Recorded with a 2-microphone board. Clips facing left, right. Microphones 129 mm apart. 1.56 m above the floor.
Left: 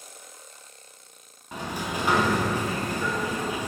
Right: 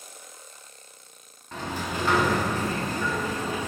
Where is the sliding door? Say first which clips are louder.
Even; 15° left (ahead or behind), 0.6 m.